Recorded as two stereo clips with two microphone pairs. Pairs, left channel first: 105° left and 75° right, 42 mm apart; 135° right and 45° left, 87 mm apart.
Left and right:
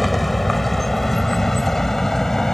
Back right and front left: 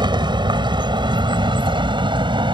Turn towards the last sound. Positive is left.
turn(degrees=25)